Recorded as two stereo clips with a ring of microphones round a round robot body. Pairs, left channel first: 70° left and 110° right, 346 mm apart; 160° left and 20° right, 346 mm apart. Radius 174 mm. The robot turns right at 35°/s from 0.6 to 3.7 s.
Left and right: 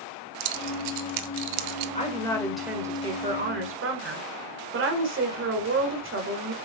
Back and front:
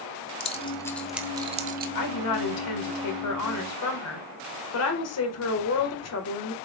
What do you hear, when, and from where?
0.4 s keys jangling: 130° right, 1.0 m; by 1.9 s 85° right, 1.0 m
1.9 s a woman speaking: 135° left, 1.9 m; by 6.5 s 165° right, 1.9 m